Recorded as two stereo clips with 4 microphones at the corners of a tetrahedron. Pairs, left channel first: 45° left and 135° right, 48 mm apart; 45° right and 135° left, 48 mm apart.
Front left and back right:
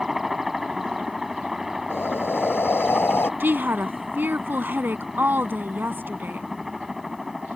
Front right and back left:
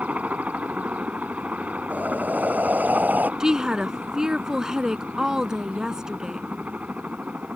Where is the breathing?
80° left.